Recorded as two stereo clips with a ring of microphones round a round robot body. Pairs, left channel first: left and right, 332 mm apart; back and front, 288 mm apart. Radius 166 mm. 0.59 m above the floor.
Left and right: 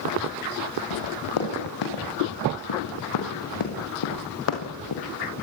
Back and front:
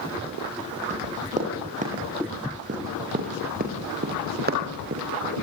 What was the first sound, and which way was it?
Running footsteps, 65° left.